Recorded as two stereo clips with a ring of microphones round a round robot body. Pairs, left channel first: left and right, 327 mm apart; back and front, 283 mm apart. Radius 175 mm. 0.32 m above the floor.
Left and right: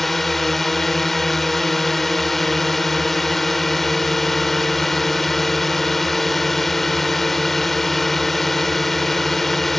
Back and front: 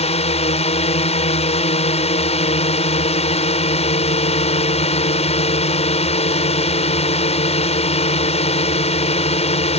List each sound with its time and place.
0.0 s a drone: straight behind